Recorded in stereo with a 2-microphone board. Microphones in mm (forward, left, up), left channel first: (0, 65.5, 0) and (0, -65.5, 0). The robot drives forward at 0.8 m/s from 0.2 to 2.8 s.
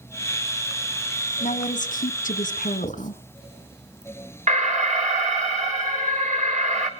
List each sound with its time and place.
1.4 s a woman speaking: 60° left (ahead or behind), 1.4 m; by 3.2 s 70° left (ahead or behind), 1.3 m
2.8 s writing: 35° left (ahead or behind), 2.5 m
4.5 s an alarm: 65° right (ahead or behind), 2.5 m